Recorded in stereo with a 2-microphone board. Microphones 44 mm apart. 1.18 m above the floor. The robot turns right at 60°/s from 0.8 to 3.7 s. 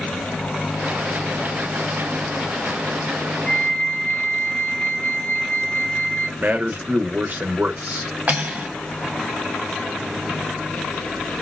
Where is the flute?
50° left (ahead or behind), 0.8 m; by 6.3 s 60° left (ahead or behind), 0.8 m.